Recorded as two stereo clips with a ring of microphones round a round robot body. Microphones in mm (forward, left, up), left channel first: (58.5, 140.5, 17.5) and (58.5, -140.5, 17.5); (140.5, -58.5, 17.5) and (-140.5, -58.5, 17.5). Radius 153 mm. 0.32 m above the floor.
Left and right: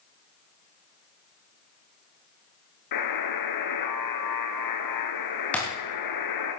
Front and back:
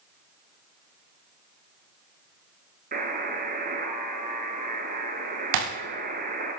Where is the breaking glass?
175° left, 4 m.